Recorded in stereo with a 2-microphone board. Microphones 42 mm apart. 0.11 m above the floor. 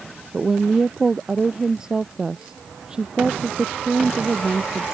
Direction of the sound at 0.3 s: 15° right (ahead or behind).